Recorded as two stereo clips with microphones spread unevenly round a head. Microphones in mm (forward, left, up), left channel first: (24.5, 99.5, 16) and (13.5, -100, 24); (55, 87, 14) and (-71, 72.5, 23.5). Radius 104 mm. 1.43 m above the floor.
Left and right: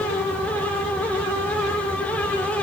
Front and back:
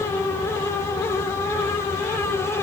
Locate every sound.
Only background noise.